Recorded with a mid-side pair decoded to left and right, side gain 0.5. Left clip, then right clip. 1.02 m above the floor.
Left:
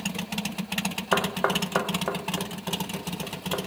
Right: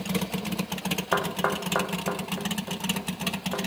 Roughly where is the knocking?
Ahead.